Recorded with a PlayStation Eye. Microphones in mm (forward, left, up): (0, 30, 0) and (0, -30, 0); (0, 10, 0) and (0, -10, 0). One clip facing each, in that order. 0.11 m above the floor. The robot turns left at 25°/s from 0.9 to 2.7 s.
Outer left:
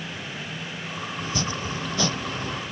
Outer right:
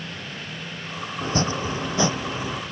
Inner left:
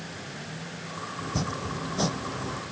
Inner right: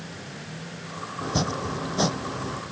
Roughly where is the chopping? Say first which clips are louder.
Outer right 6 dB, inner right 5 dB; behind right.